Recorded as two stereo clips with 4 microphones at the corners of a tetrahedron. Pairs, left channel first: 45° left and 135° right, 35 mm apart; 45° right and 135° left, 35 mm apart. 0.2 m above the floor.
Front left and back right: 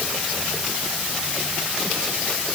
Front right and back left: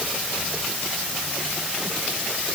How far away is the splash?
No splash in this recording.